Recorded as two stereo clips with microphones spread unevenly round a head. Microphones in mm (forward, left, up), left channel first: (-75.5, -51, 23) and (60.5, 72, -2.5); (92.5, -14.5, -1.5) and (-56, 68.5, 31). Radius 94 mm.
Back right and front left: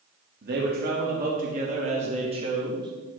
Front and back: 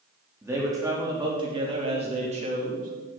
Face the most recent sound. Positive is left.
turn(degrees=110)